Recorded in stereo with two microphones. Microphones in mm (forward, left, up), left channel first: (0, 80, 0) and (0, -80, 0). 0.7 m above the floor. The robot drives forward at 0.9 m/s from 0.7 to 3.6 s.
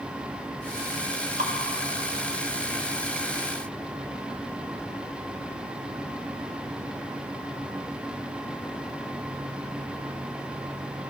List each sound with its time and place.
1.4 s dripping: 60° right (ahead or behind), 1.0 m; by 1.5 s 55° right (ahead or behind), 1.1 m